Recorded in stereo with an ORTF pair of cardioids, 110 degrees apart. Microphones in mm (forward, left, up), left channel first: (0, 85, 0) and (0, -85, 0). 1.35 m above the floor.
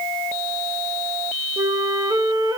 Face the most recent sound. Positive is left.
turn(degrees=-20)